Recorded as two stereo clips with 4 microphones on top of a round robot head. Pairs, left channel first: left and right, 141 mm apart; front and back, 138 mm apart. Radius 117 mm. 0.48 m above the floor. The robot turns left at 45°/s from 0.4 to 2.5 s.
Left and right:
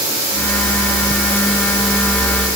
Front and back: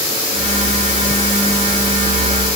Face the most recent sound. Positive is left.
No sound to turn to.